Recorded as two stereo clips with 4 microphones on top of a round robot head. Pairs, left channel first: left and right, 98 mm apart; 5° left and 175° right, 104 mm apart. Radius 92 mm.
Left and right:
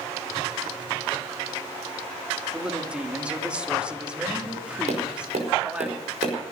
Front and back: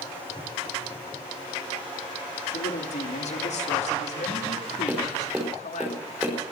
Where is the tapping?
95° right, 5 m.